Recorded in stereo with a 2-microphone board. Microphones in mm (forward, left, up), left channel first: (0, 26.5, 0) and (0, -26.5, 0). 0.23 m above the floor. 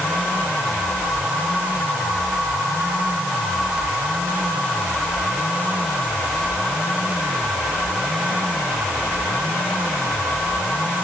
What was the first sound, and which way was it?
Only background noise.